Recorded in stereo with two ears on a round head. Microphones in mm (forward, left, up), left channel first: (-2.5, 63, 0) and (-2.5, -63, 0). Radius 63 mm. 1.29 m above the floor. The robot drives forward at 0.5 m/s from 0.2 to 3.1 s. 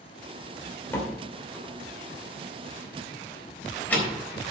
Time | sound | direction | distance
0.9 | a door slam | 15° left (ahead or behind) | 2.5 m